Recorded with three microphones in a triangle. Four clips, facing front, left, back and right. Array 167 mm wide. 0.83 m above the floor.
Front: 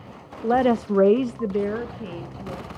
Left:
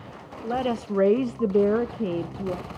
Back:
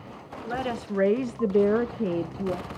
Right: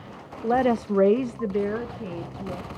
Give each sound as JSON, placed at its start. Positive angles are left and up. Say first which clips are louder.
{"t": 0.4, "sound": "a woman speaking", "louder": "right 5 dB, front 11 dB", "azimuth_deg": -25, "distance_m": 1.2}